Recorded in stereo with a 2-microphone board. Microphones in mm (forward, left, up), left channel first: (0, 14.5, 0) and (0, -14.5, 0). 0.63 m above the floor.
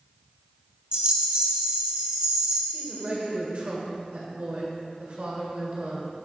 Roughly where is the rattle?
Right.